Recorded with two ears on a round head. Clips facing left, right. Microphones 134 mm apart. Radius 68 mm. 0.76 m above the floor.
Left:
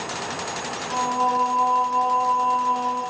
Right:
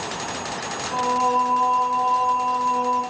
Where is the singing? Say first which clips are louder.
Right 1 dB; 15° right (ahead or behind), 1.9 m.